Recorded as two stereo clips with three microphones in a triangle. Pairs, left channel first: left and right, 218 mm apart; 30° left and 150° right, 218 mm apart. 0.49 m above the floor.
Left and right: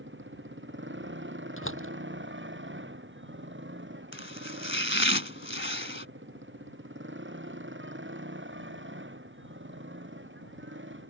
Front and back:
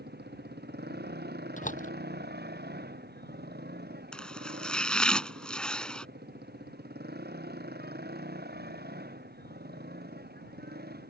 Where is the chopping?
115° left.